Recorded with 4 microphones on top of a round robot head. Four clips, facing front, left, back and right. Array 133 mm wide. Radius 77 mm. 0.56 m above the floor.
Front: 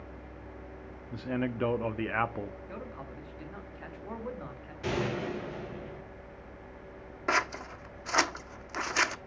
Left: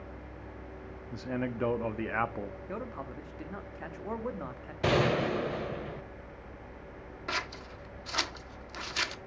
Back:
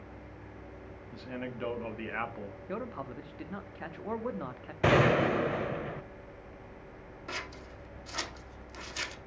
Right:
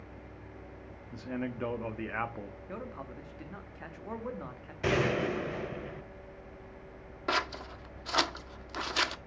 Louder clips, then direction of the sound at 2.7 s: Left 3 dB, back 4 dB; 150° left.